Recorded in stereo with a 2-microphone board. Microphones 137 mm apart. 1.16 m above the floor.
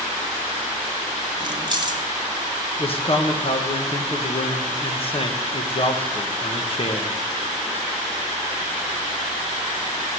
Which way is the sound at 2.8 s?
45° left (ahead or behind).